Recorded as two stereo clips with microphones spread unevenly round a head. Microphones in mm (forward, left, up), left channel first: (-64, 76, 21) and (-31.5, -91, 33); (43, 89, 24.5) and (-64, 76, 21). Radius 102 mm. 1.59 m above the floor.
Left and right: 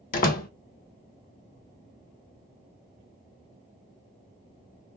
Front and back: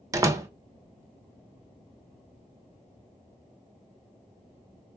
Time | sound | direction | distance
0.1 | a door slam | 130° left | 1.1 m